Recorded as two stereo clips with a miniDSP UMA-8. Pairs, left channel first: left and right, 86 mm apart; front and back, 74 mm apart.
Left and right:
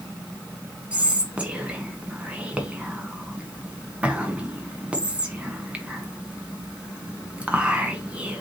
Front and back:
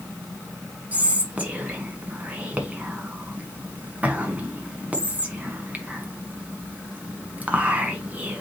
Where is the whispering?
145° right, 1.1 m.